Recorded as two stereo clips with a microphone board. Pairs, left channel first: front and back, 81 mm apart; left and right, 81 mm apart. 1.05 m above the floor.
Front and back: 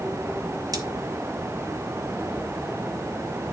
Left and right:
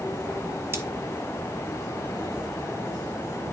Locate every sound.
0.7 s cutlery clinking: 145° right, 1.4 m